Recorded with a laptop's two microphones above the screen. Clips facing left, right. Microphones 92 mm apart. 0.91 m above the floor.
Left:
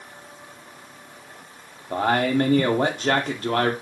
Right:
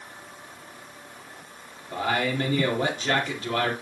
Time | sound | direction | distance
1.9 | a man speaking | 50° left (ahead or behind) | 1.9 m